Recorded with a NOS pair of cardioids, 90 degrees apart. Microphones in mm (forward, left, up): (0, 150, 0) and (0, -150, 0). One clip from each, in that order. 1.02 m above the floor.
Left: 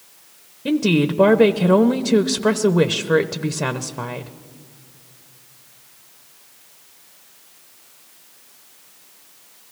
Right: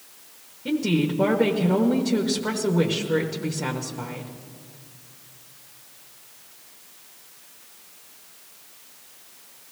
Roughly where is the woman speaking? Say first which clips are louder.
Left 5 dB; ahead left.